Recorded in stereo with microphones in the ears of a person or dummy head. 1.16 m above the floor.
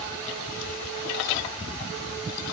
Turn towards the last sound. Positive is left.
No sound to turn to.